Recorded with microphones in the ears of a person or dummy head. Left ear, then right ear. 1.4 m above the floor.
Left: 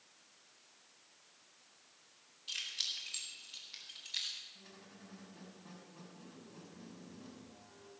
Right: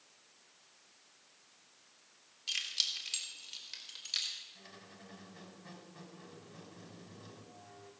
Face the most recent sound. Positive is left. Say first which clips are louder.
# right 3 dB
turn(degrees=-70)  # may be behind; listen again after turning